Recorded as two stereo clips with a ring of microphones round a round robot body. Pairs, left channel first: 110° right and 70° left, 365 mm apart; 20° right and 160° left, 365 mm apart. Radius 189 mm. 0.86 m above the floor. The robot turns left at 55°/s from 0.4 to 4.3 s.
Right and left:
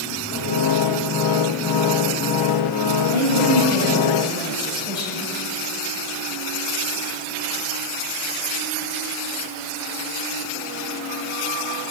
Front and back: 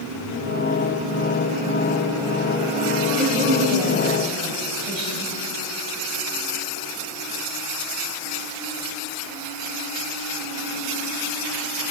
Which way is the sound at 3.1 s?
115° right.